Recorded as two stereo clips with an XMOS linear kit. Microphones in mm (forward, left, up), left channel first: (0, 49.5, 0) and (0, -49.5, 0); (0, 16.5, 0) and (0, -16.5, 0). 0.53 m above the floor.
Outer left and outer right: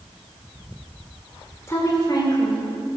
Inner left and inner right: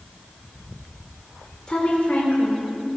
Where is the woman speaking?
30° left (ahead or behind), 1.7 m; by 3.0 s 65° left (ahead or behind), 3 m.